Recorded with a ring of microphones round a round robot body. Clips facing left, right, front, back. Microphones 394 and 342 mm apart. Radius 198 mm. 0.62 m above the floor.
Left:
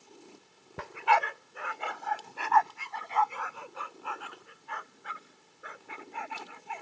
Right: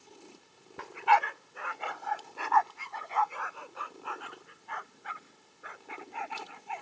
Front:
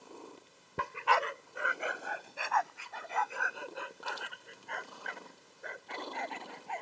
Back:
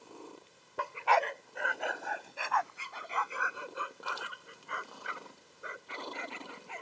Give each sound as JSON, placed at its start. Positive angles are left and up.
{"t": 0.8, "sound": "a dog barking", "azimuth_deg": 65}